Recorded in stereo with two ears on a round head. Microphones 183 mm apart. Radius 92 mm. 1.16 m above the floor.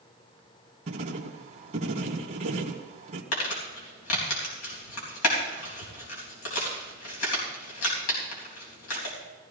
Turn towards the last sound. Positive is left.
turn(degrees=85)